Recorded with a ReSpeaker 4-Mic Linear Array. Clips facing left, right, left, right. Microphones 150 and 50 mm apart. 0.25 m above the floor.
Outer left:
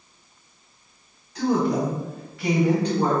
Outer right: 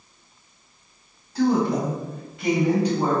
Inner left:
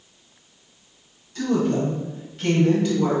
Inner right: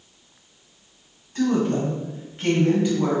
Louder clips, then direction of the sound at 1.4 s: Outer right 1 dB, even; 35° right (ahead or behind).